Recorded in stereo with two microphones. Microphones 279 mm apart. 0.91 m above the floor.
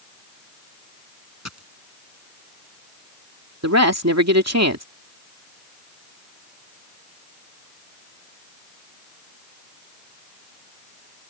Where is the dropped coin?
65° left (ahead or behind).